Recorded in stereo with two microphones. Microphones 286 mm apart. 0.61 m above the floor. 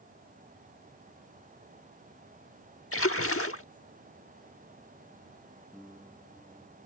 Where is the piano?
Centre (ahead or behind).